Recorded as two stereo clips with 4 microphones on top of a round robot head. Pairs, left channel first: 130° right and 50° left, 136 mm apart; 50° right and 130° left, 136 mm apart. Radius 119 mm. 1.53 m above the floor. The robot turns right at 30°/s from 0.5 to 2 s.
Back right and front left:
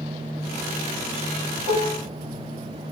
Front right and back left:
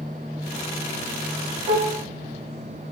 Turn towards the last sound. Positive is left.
turn(degrees=-165)